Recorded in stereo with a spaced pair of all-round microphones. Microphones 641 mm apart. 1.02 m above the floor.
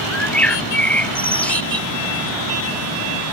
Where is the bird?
5° left (ahead or behind).